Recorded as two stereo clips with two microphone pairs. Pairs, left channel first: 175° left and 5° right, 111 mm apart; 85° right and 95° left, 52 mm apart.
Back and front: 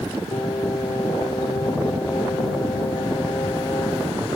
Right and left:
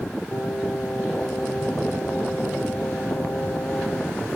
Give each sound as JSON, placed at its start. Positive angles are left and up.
{"t": 0.3, "sound": "singing", "azimuth_deg": -135}